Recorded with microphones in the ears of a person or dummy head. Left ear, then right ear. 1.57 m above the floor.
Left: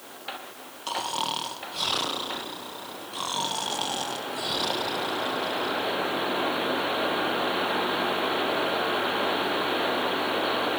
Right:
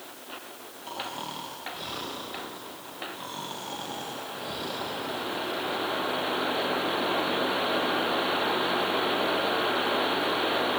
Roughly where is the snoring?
Left.